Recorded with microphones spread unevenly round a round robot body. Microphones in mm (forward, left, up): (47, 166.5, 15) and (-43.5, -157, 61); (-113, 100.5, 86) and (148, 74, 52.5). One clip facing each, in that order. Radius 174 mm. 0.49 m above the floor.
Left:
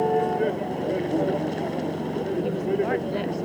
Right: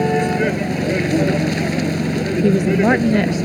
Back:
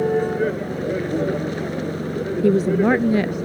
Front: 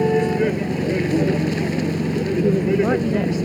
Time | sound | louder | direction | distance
0.0 | a vehicle | right 5 dB, front 2 dB | 70° right | ?
2.4 | a woman speaking | right 13 dB, back 3 dB | 120° right | ?